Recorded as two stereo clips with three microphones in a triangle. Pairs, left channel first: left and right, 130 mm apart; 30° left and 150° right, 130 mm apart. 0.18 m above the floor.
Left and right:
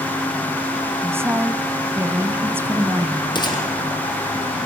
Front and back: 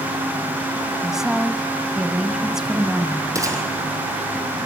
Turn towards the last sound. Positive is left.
turn(degrees=145)